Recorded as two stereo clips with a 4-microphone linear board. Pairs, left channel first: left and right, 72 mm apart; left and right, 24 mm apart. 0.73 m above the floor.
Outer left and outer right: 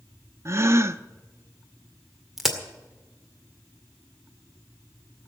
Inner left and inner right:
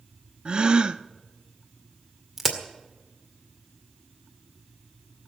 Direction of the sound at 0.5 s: 40° right (ahead or behind).